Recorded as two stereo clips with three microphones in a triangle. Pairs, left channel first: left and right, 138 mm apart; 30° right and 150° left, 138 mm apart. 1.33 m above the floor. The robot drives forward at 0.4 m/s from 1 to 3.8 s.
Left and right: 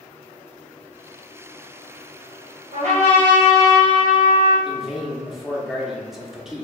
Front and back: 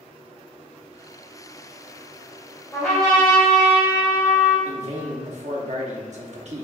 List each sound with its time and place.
2.7 s a trumpet: 105° right, 1.9 m; by 4.5 s 115° right, 2 m
4.7 s a man speaking: straight behind, 0.9 m